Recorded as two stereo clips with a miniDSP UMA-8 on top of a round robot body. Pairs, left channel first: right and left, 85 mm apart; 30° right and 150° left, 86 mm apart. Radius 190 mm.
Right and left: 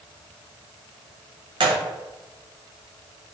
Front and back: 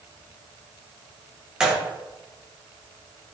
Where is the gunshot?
70° left, 0.6 m.